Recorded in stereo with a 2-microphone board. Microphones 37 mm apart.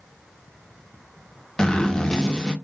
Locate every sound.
1.6 s a zipper: 20° left (ahead or behind), 0.9 m